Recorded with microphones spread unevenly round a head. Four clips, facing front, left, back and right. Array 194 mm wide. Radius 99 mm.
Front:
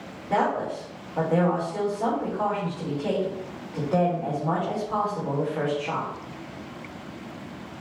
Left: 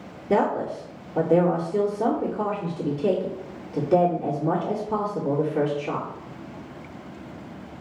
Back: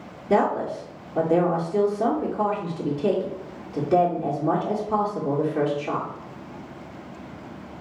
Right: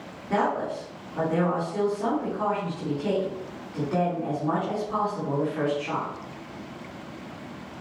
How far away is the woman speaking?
About 2.5 m.